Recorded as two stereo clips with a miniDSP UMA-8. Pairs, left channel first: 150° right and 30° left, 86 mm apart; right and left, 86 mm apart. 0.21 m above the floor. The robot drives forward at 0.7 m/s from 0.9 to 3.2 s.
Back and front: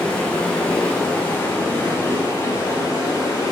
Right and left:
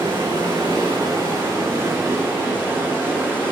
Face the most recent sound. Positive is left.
turn(degrees=155)